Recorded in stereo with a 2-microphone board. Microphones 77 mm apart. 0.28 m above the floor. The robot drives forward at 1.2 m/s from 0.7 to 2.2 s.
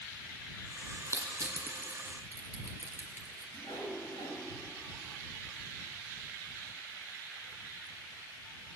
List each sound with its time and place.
1.1 s crushing: 45° right (ahead or behind), 1.6 m; by 3.4 s 25° right (ahead or behind), 2.5 m
3.5 s a whoosh: 80° left, 5 m